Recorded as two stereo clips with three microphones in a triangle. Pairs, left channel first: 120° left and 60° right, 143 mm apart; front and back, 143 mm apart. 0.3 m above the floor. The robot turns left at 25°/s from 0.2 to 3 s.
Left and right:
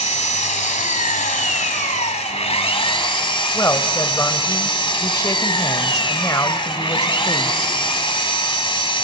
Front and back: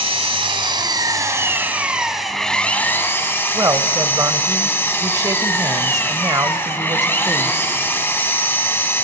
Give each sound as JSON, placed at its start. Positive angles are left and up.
{"t": 0.0, "sound": "an engine running", "azimuth_deg": 140, "distance_m": 1.2}
{"t": 3.5, "sound": "a man speaking", "azimuth_deg": 155, "distance_m": 1.0}